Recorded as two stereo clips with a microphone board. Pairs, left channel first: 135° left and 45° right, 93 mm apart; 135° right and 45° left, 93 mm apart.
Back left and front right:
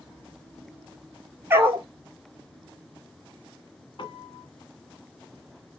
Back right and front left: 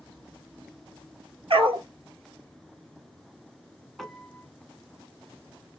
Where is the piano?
135° left, 0.8 m.